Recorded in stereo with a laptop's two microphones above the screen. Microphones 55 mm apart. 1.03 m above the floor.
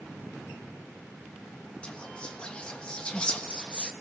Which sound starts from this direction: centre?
Whispering, at 1.8 s.